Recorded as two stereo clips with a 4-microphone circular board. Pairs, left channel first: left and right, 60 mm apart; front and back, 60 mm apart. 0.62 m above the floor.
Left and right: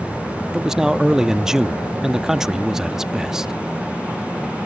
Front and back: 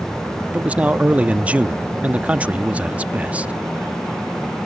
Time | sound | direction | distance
0.5 | a man speaking | 160° right | ?